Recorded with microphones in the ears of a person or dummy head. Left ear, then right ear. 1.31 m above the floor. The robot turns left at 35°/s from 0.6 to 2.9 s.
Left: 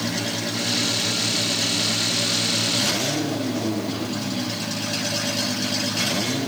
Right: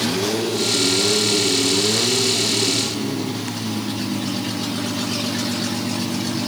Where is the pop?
I don't hear a pop.